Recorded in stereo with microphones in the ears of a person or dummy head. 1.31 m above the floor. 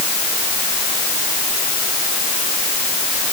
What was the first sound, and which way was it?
Only background noise.